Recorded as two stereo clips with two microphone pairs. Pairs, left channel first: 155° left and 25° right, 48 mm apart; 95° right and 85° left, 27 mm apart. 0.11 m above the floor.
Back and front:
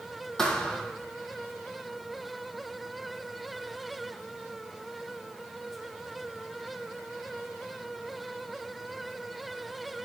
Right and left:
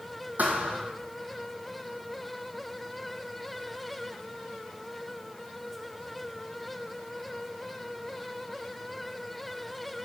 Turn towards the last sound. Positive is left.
turn(degrees=80)